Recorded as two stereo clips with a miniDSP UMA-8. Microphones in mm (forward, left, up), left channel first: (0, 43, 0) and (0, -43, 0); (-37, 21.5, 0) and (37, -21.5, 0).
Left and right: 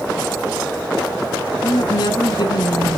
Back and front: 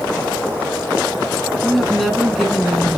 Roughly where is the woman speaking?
Ahead left.